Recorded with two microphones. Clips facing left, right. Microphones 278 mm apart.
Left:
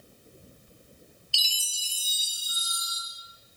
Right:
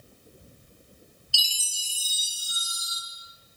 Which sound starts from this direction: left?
A chime, at 1.3 s.